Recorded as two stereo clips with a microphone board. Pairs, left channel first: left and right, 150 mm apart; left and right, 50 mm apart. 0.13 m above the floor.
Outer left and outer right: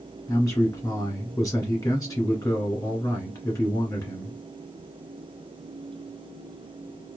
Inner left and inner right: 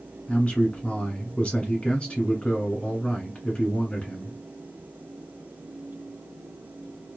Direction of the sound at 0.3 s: 25° left (ahead or behind).